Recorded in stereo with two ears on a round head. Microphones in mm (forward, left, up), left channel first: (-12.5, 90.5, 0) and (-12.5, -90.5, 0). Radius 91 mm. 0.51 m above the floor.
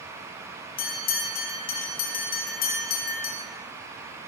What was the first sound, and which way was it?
A bell, 45° left (ahead or behind).